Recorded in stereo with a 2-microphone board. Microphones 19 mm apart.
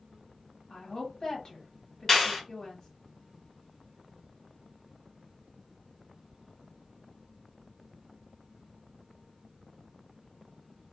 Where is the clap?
15° left (ahead or behind), 1.7 m.